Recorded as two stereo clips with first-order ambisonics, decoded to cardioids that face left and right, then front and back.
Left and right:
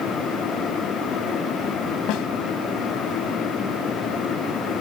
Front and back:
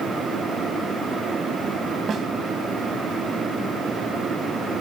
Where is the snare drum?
115° left, 1.8 m.